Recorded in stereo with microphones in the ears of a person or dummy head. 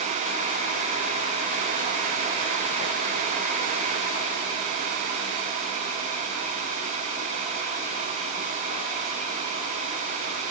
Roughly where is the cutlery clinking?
No cutlery clinking in this recording.